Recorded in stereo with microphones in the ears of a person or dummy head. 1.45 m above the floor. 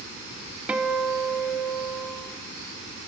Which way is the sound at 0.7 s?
5° right (ahead or behind).